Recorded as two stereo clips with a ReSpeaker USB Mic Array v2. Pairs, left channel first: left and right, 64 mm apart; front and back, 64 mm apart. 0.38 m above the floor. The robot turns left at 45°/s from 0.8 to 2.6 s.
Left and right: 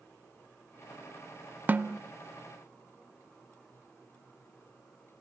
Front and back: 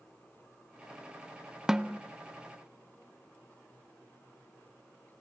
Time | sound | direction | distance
1.7 | a snare drum | 105° right | 0.5 m